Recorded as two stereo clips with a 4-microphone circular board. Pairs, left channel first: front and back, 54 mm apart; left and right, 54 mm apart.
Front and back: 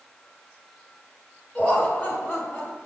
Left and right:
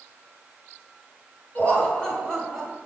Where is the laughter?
50° left, 1.9 m; by 2.8 s straight ahead, 2.0 m.